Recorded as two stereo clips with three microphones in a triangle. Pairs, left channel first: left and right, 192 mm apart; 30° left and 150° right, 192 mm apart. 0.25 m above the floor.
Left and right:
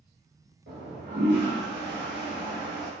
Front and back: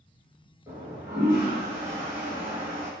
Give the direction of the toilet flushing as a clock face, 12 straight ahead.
2 o'clock.